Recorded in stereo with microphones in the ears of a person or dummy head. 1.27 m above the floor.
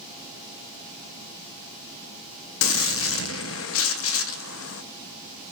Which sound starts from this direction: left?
A gunshot, at 2.6 s.